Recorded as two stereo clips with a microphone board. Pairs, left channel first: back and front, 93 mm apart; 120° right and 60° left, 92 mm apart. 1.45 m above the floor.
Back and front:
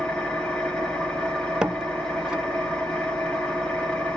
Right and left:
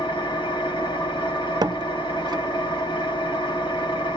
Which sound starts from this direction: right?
An engine running, at 0.0 s.